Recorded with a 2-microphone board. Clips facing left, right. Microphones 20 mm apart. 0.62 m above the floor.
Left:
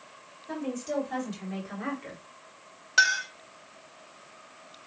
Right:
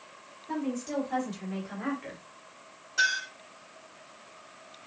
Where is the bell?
I don't hear a bell.